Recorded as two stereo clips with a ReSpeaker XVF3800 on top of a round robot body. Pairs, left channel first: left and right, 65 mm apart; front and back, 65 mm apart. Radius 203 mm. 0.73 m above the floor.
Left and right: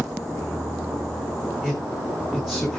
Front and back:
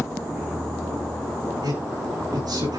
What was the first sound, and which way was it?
A man speaking, 175° right.